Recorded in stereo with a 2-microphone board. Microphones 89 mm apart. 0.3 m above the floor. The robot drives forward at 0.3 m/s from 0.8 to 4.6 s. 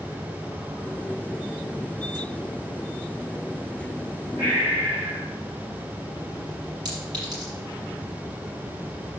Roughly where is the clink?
Right.